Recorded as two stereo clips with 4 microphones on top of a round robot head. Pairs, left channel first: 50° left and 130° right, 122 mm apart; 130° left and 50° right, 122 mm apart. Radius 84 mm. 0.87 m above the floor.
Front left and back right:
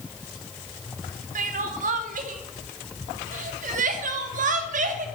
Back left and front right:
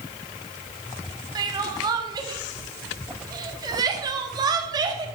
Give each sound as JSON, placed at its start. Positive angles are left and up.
{"t": 1.4, "sound": "crying", "azimuth_deg": -110, "distance_m": 0.7}